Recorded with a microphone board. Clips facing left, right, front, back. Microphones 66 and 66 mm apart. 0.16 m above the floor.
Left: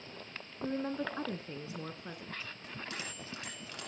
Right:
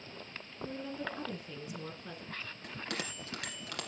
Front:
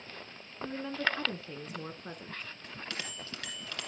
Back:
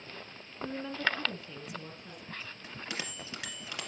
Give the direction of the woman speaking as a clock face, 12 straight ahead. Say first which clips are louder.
Left 5 dB, even; 9 o'clock.